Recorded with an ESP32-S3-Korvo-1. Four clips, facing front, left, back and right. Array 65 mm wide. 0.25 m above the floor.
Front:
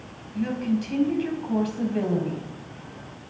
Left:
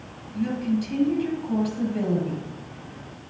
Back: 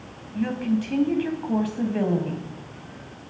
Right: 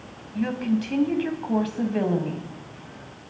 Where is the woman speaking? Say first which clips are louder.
Right 1 dB, back 1 dB; 110° right, 1.4 m.